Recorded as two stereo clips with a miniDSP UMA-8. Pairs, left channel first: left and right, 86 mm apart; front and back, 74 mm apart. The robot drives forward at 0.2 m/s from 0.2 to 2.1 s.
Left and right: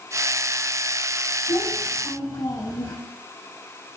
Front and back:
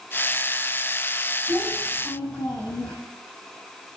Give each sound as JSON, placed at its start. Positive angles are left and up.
{"t": 1.5, "sound": "a child speaking", "azimuth_deg": 80, "distance_m": 6.5}